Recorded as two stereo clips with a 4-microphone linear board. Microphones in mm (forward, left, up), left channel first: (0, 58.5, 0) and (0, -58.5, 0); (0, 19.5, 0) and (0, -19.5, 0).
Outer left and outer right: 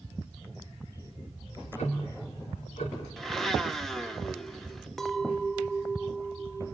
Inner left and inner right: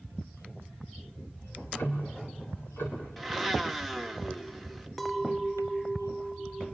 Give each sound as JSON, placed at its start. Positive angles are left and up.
{"t": 1.4, "sound": "ticking", "side_deg": 80, "distance_m": 5.0}
{"t": 3.2, "sound": "a blender", "side_deg": 0, "distance_m": 1.4}
{"t": 5.0, "sound": "a clink", "side_deg": 5, "distance_m": 0.5}